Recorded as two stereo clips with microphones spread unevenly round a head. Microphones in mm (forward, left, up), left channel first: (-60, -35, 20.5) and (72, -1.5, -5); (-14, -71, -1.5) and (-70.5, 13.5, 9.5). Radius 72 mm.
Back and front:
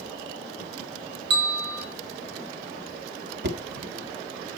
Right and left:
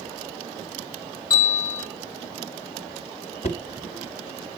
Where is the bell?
20° left, 4.5 m.